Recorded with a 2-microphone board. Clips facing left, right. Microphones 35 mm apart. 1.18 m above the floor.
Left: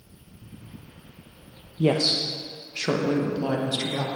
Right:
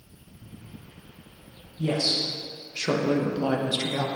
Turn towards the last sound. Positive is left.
turn(degrees=-15)  # may be behind; listen again after turning